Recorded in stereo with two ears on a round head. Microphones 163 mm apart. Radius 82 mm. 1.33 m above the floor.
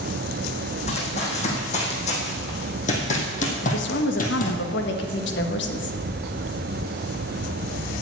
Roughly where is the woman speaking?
Left.